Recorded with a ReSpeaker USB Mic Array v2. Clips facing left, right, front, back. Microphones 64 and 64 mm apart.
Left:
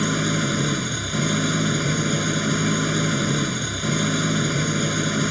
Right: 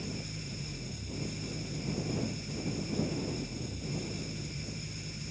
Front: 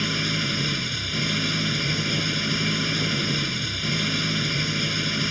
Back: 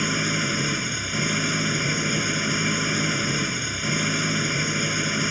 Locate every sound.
0.0 s an engine running: 105° left